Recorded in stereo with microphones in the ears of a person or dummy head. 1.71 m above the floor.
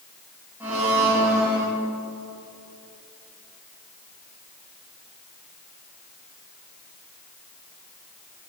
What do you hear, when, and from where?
0.6 s a blender: 10° right (ahead or behind), 3 m